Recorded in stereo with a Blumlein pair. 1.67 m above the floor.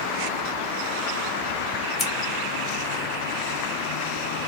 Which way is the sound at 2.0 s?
25° left.